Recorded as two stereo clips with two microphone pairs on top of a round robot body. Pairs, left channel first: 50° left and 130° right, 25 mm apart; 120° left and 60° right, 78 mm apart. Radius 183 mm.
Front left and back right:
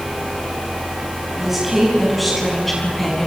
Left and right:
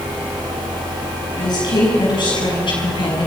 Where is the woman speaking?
150° left, 6 m; by 3.3 s 125° left, 5.5 m.